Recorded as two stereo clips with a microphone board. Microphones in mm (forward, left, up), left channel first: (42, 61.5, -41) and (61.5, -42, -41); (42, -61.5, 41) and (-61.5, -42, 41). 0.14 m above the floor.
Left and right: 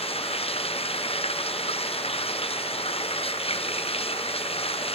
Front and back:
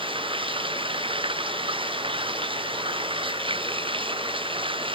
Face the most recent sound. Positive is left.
turn(degrees=130)